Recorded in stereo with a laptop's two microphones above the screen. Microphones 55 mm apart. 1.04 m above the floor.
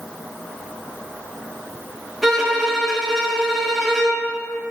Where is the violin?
Centre (ahead or behind), 1.3 m.